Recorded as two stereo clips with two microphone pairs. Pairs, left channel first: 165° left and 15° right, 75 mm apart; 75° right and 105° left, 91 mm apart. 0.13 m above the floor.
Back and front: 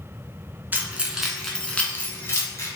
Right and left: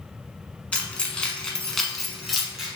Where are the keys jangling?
10° right, 0.8 m; by 2.7 s 175° right, 1.1 m.